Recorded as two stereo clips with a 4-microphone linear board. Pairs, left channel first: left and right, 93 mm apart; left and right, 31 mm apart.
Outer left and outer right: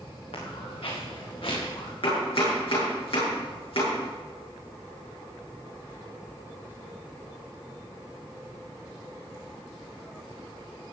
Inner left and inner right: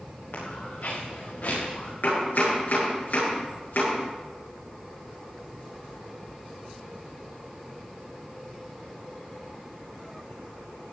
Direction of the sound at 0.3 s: 75° left (ahead or behind).